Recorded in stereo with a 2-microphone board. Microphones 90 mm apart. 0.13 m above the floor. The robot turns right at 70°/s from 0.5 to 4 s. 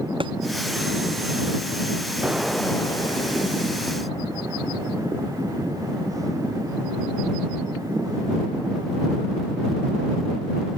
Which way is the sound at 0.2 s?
70° right (ahead or behind).